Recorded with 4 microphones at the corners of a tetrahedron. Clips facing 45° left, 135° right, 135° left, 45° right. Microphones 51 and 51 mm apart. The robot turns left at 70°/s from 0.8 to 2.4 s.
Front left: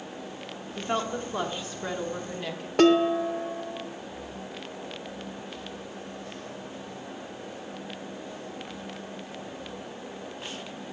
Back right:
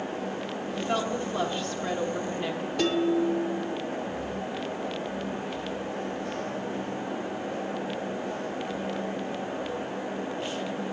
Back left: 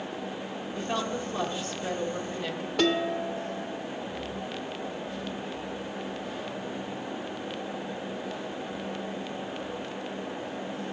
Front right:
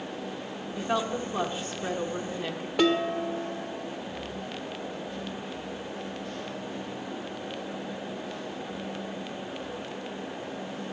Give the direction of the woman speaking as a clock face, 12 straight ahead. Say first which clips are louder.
Even, front right 3 dB; 11 o'clock.